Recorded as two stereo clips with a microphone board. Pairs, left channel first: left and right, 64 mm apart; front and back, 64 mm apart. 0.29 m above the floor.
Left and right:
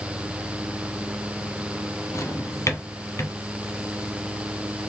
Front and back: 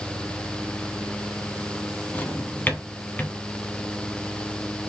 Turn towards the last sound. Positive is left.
turn(degrees=60)